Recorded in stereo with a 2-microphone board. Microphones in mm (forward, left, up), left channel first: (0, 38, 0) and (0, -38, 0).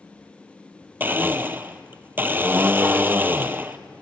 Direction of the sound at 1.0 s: 25° right (ahead or behind).